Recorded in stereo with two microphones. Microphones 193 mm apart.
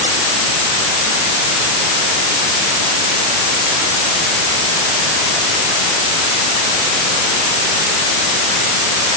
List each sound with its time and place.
Only background noise.